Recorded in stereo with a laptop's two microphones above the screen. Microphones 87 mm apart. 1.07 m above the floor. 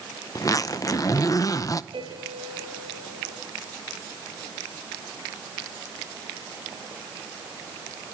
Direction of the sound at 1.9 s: 80° right.